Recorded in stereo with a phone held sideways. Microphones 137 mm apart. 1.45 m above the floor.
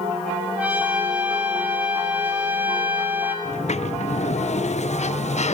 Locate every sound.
0.6 s a trumpet: 10° right (ahead or behind), 2.5 m
3.5 s a sliding door: 55° left (ahead or behind), 0.6 m